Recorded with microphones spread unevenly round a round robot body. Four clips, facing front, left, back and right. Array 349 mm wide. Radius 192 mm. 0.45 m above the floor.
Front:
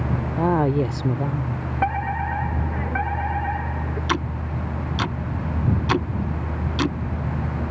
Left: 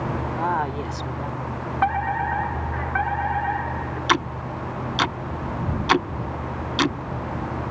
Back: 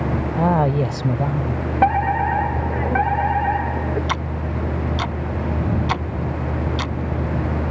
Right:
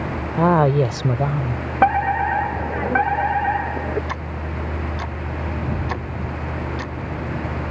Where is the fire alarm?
140° right.